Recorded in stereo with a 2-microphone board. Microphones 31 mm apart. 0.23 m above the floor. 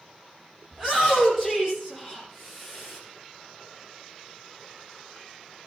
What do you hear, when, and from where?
0.7 s a shout: 10° right (ahead or behind), 9.5 m; by 3.0 s centre (ahead or behind), 9 m